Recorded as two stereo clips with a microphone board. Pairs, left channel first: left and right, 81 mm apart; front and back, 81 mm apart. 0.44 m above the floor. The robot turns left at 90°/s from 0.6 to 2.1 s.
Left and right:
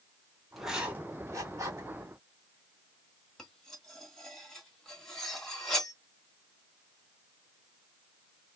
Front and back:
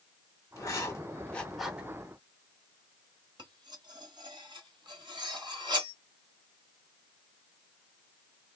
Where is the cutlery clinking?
175° left, 1.3 m.